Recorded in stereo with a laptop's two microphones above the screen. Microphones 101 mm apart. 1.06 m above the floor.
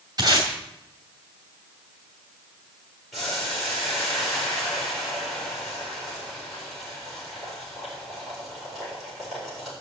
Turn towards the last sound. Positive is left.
turn(degrees=0)  # may be behind; listen again after turning